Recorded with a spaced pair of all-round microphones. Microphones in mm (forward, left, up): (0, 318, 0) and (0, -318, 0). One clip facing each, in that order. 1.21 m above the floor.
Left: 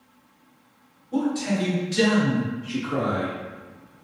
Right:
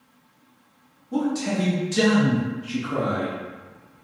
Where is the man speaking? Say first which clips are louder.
Even; 65° right (ahead or behind), 1.7 m; by 3.3 s 20° left (ahead or behind), 0.9 m.